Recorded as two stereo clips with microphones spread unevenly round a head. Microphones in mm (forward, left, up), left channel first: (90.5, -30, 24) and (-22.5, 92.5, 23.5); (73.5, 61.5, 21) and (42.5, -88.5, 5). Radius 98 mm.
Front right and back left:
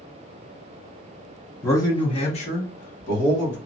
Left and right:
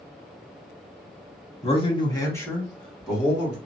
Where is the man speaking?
30° left, 1.2 m; by 3.6 s 20° right, 1.7 m.